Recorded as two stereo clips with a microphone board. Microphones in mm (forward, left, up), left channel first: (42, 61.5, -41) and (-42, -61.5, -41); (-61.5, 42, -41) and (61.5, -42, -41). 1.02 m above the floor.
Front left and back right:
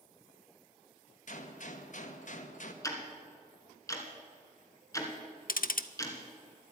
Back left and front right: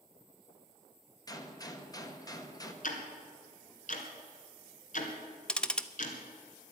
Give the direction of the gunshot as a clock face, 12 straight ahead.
9 o'clock.